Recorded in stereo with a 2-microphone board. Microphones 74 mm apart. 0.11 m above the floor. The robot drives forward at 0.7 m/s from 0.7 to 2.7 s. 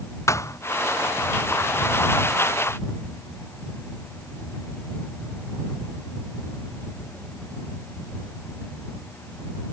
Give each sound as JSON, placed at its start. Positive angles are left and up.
{"t": 0.3, "sound": "a thud", "side_deg": 40}